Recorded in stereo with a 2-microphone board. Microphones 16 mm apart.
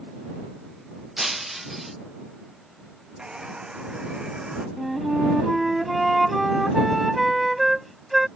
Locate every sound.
1.2 s breaking glass: 10° right (ahead or behind)
3.2 s a hair dryer: 55° right (ahead or behind)
4.8 s a flute: 5° right (ahead or behind)